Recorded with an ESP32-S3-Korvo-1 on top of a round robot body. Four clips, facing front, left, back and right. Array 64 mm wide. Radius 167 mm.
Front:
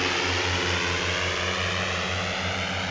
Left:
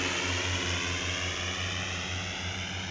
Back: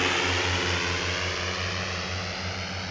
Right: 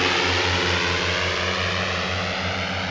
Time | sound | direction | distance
0.0 | a drone | 95° right | ?